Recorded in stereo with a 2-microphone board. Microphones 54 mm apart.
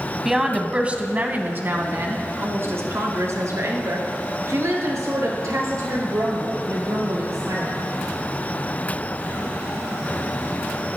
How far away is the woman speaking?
About 1.2 m.